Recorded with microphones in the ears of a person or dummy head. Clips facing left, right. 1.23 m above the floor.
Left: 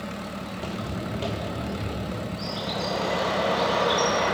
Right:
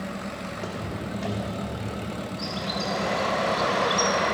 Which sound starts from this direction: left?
Footsteps, at 0.5 s.